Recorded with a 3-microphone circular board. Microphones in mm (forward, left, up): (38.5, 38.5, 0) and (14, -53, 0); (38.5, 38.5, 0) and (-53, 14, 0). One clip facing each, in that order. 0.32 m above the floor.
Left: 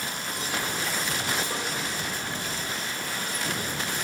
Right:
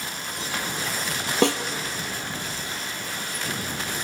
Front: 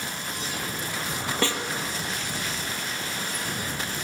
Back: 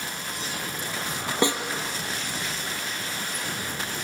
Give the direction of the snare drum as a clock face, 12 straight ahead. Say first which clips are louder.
Right 11 dB, back 4 dB; 3 o'clock.